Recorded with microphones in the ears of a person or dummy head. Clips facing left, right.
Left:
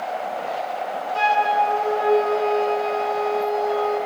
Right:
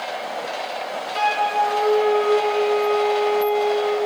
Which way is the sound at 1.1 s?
25° right (ahead or behind).